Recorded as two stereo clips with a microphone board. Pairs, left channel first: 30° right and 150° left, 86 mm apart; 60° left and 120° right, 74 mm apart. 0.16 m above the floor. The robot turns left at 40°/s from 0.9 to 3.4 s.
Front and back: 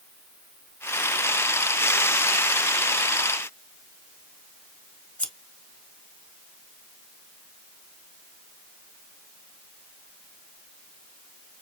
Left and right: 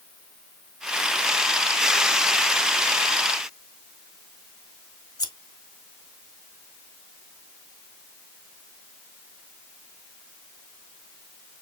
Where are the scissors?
40° left, 1.4 m.